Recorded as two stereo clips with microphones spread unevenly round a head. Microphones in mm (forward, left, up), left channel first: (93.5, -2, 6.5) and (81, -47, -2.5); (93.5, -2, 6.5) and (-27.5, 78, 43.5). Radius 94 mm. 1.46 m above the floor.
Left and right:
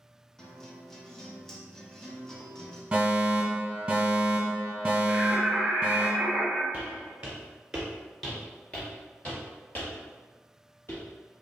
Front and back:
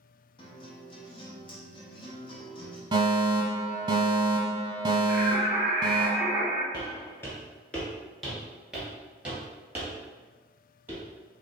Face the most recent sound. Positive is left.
turn(degrees=85)